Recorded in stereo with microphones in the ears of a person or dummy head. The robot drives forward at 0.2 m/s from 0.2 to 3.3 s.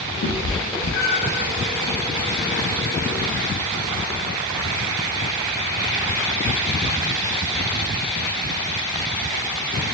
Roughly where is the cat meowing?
Left.